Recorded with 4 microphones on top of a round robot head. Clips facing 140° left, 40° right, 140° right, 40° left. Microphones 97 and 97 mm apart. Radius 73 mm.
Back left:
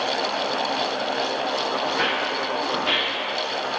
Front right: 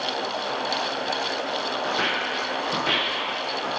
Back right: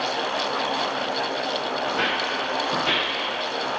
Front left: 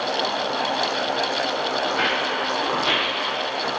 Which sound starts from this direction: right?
Footsteps, at 1.9 s.